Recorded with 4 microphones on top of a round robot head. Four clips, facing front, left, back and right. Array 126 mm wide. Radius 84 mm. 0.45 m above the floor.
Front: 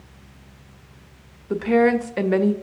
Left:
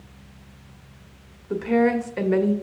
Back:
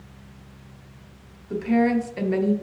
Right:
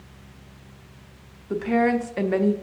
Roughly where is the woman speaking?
Ahead.